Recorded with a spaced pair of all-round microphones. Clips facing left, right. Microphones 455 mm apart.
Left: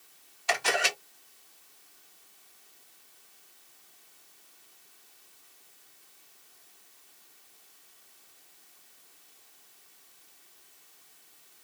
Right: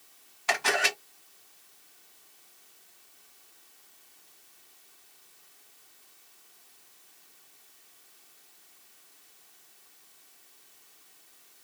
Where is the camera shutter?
70° right (ahead or behind), 2.0 m.